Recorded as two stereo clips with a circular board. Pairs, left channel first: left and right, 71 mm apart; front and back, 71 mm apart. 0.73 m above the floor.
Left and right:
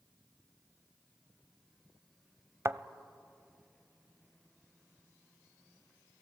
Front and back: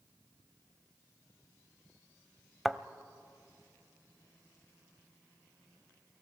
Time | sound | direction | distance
2.6 | a thud | 90° right | 0.6 m